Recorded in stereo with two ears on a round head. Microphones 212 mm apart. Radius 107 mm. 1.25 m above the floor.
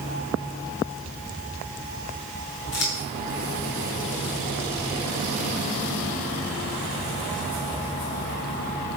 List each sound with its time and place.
2.7 s scissors: 50° left (ahead or behind), 6 m